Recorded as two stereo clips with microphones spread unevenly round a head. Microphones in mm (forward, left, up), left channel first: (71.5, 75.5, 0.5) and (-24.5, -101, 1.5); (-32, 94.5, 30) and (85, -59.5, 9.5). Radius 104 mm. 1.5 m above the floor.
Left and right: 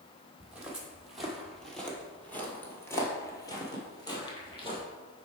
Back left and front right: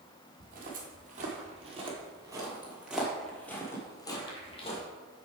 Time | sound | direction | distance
0.4 | footsteps | 35° right | 1.9 m